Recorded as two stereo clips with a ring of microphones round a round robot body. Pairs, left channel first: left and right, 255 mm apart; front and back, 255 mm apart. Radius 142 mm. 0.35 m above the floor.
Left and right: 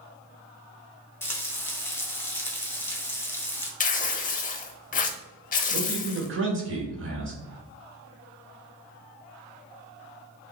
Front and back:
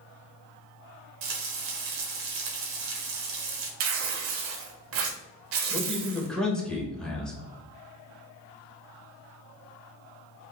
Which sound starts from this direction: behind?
Frying, at 1.2 s.